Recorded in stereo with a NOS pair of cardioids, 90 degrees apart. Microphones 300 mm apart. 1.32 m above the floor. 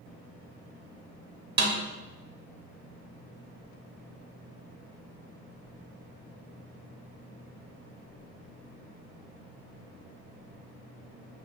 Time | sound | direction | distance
1.6 | a snare drum | 35° right | 0.6 m